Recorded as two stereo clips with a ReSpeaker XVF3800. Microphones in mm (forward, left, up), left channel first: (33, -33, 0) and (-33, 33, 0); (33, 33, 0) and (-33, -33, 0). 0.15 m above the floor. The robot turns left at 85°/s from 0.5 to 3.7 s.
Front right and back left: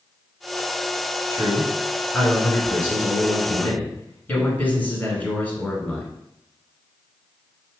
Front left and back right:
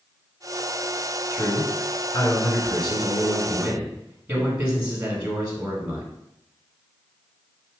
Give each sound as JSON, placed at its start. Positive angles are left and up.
{"t": 1.3, "sound": "a man speaking", "azimuth_deg": 120, "distance_m": 1.3}